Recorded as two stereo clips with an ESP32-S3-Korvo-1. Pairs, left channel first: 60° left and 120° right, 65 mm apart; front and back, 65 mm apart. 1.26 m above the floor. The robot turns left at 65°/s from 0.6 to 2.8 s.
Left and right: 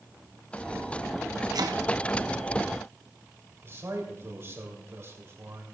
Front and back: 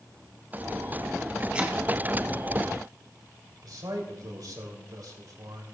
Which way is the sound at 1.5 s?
110° right.